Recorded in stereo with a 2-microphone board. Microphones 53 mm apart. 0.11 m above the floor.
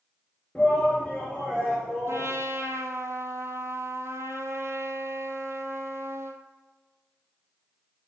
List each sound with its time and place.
0.6 s a shout: 10° left (ahead or behind), 2.0 m; by 2.3 s centre (ahead or behind), 3.5 m
2.1 s a trumpet: 60° right (ahead or behind), 0.8 m